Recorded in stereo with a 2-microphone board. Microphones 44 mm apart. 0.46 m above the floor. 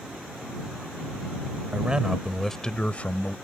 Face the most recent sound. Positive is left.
turn(degrees=40)  # may be behind; listen again after turning